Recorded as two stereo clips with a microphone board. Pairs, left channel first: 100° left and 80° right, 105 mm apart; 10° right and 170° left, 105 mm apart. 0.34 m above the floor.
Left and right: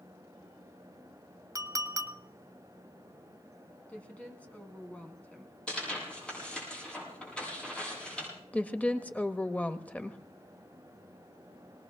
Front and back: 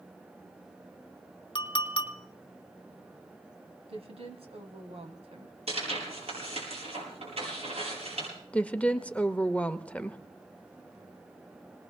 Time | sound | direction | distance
1.6 | a clink | 30° right | 1.0 m
3.9 | a woman speaking | 175° left | 2.5 m
5.7 | tearing paper | straight behind | 8 m
8.5 | a woman speaking | 45° left | 0.8 m